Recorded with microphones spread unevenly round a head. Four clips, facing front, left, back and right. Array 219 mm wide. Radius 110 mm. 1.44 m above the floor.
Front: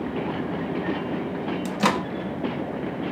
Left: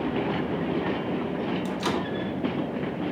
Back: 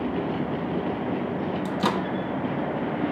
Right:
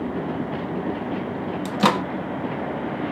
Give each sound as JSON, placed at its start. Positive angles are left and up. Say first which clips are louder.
{"t": 1.6, "sound": "a microwave", "louder": "right 7 dB, front 3 dB", "azimuth_deg": -65, "distance_m": 1.6}